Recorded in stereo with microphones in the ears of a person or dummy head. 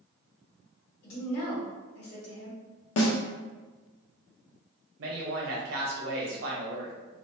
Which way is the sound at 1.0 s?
60° left (ahead or behind).